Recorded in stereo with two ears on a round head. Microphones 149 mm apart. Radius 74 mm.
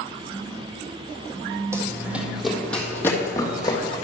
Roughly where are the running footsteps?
Centre.